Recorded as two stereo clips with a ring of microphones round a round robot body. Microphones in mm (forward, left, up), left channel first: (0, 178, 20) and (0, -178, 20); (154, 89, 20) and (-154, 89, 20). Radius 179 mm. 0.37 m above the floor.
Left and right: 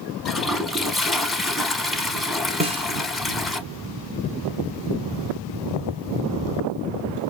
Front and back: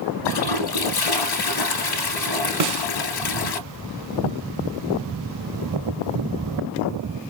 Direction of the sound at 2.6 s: 165° right.